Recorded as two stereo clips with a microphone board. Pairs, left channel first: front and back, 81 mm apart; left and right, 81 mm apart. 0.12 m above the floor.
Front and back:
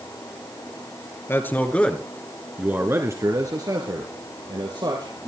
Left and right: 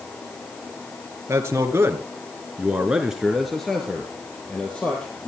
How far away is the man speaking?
About 2.5 m.